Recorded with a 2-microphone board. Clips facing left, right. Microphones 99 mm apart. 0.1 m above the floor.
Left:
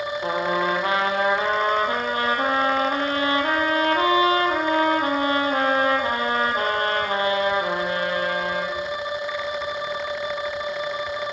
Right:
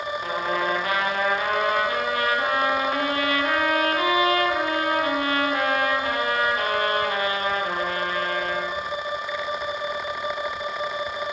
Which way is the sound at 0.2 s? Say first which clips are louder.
Left 3 dB; 30° left (ahead or behind).